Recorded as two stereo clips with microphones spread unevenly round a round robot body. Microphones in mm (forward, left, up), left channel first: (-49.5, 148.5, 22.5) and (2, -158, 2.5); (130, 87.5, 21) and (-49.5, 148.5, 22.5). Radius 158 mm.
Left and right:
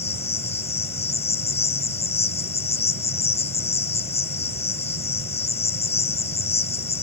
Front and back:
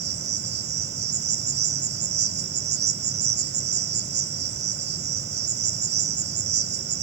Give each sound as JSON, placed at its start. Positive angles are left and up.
{"t": 0.0, "sound": "an insect", "azimuth_deg": 170, "distance_m": 1.2}